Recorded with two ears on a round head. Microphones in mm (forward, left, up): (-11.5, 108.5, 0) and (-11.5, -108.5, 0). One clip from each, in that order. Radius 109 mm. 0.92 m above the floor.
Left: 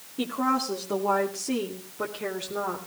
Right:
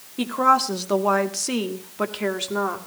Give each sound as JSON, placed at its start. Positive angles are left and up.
{"t": 0.2, "sound": "a woman speaking", "side_deg": -30, "distance_m": 2.5}